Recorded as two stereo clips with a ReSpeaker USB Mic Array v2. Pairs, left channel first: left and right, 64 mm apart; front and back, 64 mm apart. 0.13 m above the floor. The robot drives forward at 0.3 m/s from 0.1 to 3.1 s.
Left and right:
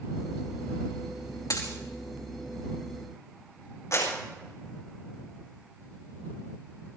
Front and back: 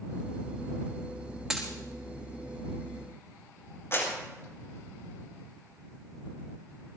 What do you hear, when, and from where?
1.5 s a dropped coin: 95° left, 5.5 m; by 1.7 s 100° left, 5.5 m
3.9 s a clap: 50° left, 7 m